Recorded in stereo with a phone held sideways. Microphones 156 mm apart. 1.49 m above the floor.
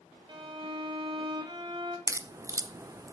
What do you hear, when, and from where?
0.3 s a violin: 30° right (ahead or behind), 1.5 m
2.1 s a crack: 20° right (ahead or behind), 0.5 m